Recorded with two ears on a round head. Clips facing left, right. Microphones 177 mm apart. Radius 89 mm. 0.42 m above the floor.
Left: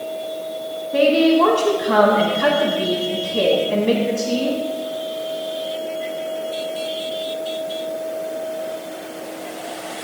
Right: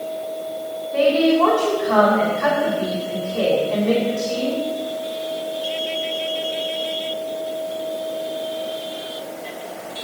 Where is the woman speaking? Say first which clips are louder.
Left 2 dB; 50° left (ahead or behind), 3 m.